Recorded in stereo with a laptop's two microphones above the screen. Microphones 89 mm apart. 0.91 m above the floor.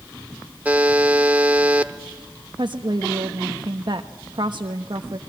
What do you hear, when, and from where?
0.7 s a buzzer: 15° right (ahead or behind), 0.9 m
2.6 s a woman speaking: 55° right (ahead or behind), 1.1 m